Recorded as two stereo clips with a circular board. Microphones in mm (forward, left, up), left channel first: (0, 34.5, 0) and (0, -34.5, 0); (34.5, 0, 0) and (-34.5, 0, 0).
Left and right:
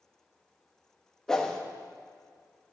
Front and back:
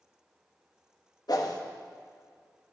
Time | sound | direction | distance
1.3 | a whoosh | 10° left | 1.0 m